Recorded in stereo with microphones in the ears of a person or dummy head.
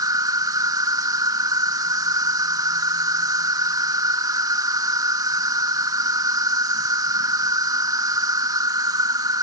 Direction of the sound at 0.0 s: 20° right (ahead or behind).